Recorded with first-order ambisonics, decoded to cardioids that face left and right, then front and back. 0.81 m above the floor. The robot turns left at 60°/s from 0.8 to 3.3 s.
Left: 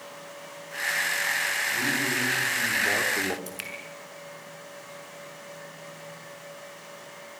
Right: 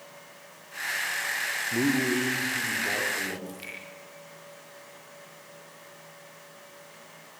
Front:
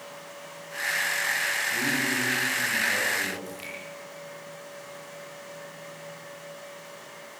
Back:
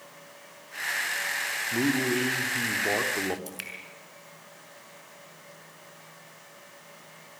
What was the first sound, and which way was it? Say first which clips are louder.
A man speaking: left 1 dB, front 1 dB; 125° right.